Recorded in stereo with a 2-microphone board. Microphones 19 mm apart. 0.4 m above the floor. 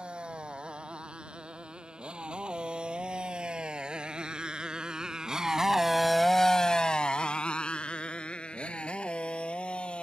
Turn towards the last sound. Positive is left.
turn(degrees=80)